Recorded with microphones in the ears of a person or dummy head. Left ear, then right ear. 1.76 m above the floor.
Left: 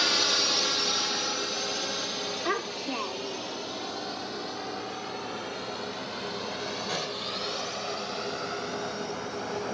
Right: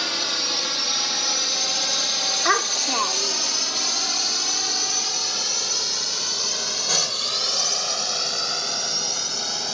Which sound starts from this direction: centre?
A drone, at 0.0 s.